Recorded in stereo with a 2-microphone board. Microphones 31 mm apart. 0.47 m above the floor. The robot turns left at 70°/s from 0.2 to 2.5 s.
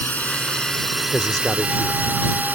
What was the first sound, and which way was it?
A drone, 55° left.